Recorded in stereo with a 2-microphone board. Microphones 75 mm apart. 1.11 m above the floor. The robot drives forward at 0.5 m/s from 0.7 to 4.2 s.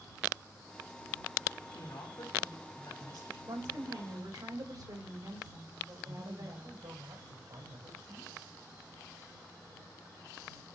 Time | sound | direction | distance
1.7 | a woman speaking | 85° left | 4 m
3.5 | a woman speaking | 80° right | 4 m
6.0 | a man speaking | 80° right | 5 m